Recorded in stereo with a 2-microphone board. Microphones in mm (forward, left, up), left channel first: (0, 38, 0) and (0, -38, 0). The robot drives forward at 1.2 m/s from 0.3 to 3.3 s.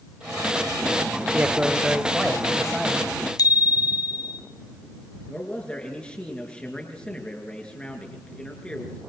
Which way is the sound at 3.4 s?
60° left (ahead or behind).